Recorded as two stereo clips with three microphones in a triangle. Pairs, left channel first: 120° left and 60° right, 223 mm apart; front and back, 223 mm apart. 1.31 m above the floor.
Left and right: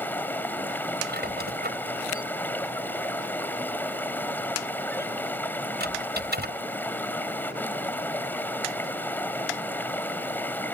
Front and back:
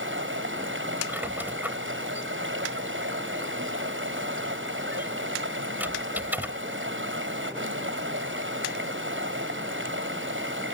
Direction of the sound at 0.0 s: 160° right.